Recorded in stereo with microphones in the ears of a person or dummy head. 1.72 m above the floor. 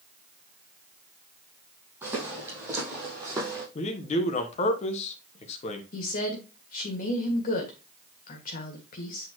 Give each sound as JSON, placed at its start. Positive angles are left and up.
{"t": 2.0, "sound": "footsteps", "side_deg": -15, "distance_m": 4.0}
{"t": 3.8, "sound": "a man speaking", "side_deg": 40, "distance_m": 1.1}
{"t": 5.9, "sound": "a woman speaking", "side_deg": 55, "distance_m": 2.0}